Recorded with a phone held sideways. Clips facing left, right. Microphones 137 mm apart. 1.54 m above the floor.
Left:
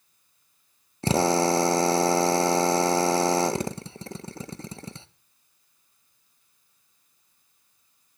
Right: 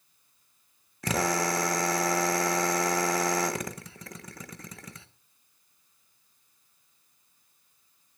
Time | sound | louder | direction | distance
1.0 | a drill | left 6 dB | 30° left (ahead or behind) | 0.7 m